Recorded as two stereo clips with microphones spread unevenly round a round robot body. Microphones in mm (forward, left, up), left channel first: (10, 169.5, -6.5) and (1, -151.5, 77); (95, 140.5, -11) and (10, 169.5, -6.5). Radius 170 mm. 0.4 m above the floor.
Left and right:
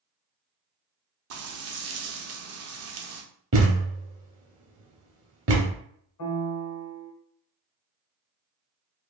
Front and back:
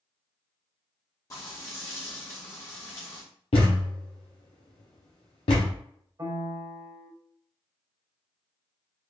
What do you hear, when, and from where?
1.3 s frying: 50° right, 0.7 m
3.5 s a thud: 35° right, 1.0 m
6.2 s a piano: 110° left, 1.0 m